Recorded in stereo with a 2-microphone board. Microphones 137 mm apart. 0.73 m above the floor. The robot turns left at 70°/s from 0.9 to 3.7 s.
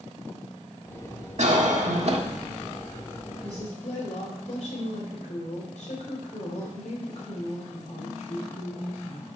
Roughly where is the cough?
Right.